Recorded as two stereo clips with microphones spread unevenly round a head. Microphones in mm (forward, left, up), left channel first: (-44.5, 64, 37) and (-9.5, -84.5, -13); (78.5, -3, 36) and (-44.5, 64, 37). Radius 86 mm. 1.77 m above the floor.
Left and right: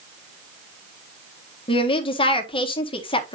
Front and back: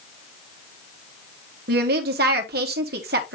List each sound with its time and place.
1.7 s a woman speaking: 150° left, 1.6 m